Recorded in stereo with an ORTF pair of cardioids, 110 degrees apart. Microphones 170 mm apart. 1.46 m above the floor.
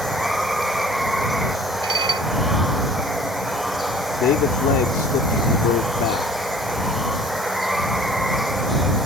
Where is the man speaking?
65° left.